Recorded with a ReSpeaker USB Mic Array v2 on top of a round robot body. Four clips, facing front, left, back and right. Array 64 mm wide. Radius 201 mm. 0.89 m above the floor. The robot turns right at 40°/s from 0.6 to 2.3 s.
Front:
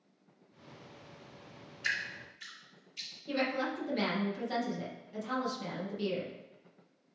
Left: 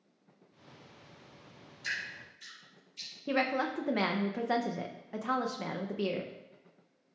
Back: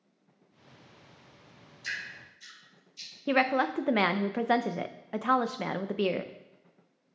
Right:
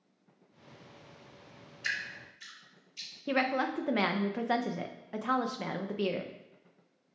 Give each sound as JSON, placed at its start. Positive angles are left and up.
{"t": 1.8, "sound": "dripping", "azimuth_deg": -40, "distance_m": 2.5}
{"t": 3.3, "sound": "a woman speaking", "azimuth_deg": -175, "distance_m": 0.5}